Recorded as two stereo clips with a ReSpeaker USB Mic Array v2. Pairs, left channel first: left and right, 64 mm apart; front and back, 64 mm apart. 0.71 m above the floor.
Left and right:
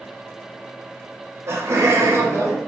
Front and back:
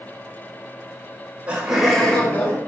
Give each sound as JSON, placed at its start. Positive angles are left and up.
{"t": 1.5, "sound": "laughter", "azimuth_deg": -120, "distance_m": 0.8}